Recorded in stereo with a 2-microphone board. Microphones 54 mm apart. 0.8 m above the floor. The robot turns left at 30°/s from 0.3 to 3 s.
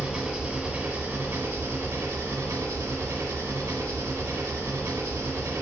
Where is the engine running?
15° right, 1.3 m; by 5.6 s 100° right, 1.3 m.